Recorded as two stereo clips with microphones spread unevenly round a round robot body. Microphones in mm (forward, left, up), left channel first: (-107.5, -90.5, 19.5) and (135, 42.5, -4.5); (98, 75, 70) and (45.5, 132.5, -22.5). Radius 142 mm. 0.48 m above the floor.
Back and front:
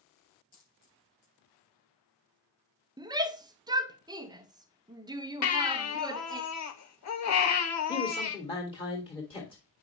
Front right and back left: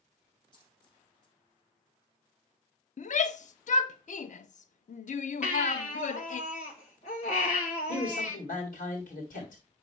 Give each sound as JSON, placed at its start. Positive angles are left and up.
{"t": 0.5, "sound": "a dropped coin", "azimuth_deg": -150, "distance_m": 3.0}
{"t": 3.0, "sound": "a shout", "azimuth_deg": -5, "distance_m": 0.7}
{"t": 5.4, "sound": "a baby crying", "azimuth_deg": -120, "distance_m": 1.2}
{"t": 7.9, "sound": "a man speaking", "azimuth_deg": -80, "distance_m": 1.7}